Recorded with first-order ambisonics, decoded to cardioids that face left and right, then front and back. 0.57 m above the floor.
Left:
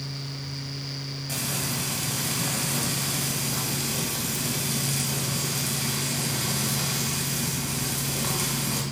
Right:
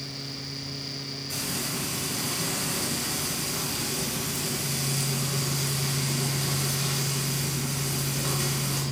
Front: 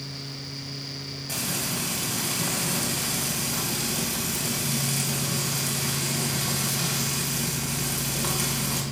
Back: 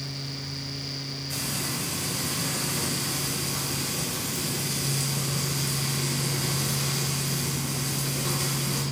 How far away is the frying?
About 2 m.